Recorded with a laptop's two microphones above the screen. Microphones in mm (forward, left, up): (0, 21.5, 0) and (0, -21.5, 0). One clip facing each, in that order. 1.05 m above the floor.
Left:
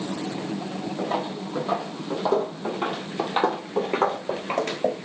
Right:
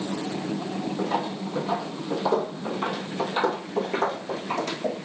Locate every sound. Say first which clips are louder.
1.0 s footsteps: left 1 dB; 20° left (ahead or behind), 3 m; by 4.9 s 45° left (ahead or behind), 1.5 m